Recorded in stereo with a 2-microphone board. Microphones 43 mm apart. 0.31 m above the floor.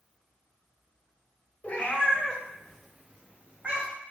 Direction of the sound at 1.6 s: 35° left (ahead or behind).